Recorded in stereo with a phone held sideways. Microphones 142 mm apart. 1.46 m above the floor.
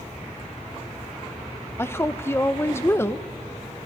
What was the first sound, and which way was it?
A woman speaking, 20° left (ahead or behind).